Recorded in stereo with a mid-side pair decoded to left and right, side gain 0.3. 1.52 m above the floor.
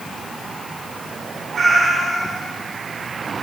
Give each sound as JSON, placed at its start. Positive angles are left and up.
{"t": 1.5, "sound": "a cat meowing", "azimuth_deg": -65, "distance_m": 7.0}